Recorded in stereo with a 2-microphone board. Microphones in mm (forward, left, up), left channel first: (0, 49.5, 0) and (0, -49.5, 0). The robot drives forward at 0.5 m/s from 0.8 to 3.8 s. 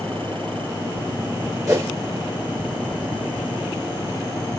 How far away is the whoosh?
About 3 m.